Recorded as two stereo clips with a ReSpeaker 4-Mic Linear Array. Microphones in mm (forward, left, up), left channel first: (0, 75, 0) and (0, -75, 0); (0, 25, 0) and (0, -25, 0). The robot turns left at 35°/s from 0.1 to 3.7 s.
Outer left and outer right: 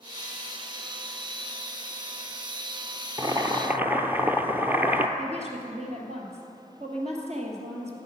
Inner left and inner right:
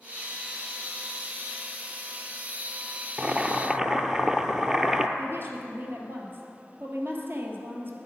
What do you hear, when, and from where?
3.2 s boiling: 30° right (ahead or behind), 0.7 m; by 5.1 s 10° right (ahead or behind), 0.7 m
5.2 s a woman speaking: 50° right (ahead or behind), 2 m